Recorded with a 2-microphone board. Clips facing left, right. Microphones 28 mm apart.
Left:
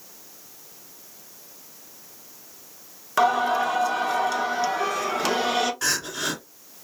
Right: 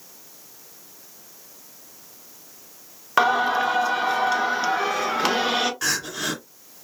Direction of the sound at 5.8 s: 5° right (ahead or behind).